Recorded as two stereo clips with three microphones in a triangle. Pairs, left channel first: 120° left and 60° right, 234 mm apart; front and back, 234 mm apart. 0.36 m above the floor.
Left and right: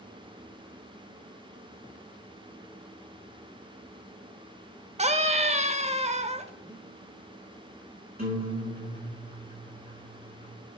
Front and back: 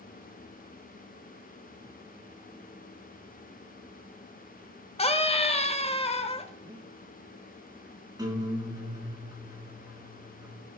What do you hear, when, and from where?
5.0 s a scream: 35° right, 1.0 m
6.7 s breathing: 125° right, 0.6 m
8.2 s a guitar: 105° right, 4.5 m